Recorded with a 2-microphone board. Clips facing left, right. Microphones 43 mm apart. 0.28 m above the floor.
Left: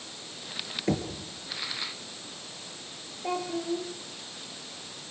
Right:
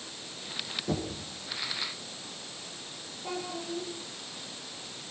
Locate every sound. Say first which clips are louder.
0.9 s knocking: left 4 dB; 65° left (ahead or behind), 4.5 m
3.2 s a child speaking: left 6 dB; 40° left (ahead or behind), 3.5 m